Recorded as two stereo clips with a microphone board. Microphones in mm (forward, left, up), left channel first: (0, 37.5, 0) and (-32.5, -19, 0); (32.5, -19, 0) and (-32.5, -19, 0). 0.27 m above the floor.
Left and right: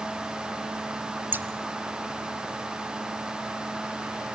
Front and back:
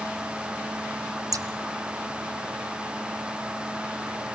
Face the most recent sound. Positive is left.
turn(degrees=-175)